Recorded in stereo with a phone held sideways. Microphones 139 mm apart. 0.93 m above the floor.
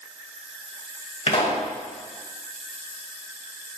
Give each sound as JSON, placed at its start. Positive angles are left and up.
{"t": 1.3, "sound": "a pop", "side_deg": 50, "distance_m": 2.5}